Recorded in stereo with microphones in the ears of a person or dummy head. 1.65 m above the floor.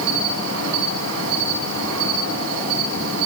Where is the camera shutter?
No camera shutter in this recording.